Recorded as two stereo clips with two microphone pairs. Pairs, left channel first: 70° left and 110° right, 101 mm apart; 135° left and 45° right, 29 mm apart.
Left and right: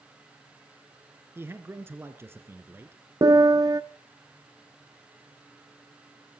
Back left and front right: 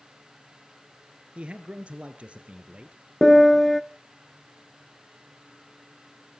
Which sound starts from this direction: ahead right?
A man speaking, at 1.4 s.